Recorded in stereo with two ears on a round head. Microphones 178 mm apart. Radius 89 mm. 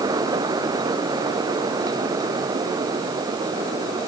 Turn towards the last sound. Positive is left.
No sound to turn to.